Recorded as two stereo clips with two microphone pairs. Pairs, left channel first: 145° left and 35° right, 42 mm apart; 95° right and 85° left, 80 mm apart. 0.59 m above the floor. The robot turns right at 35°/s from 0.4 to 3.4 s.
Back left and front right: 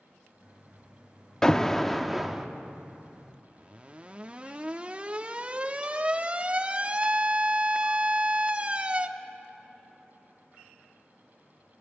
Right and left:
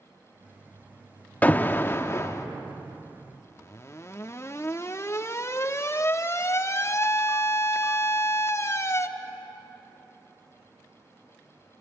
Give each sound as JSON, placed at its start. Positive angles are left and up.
{"t": 1.4, "sound": "an alarm", "azimuth_deg": -150, "distance_m": 0.6}